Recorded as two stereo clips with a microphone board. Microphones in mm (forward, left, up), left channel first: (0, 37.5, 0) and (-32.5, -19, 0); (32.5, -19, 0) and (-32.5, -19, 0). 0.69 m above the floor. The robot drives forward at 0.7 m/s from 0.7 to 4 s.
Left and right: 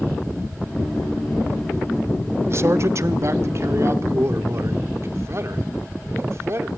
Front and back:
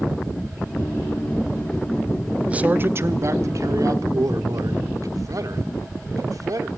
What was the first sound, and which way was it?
A man speaking, 120° right.